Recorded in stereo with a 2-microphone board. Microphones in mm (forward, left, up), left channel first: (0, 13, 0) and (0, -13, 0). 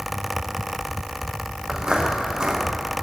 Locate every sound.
1.7 s footsteps: 30° right (ahead or behind), 6 m